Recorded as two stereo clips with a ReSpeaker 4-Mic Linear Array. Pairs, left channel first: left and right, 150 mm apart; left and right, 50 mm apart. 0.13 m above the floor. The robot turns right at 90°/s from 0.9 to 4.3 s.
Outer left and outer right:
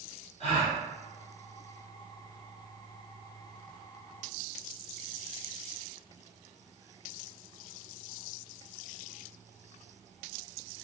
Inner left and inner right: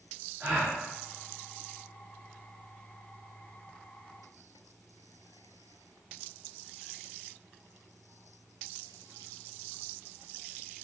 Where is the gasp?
45° right (ahead or behind), 1.5 m.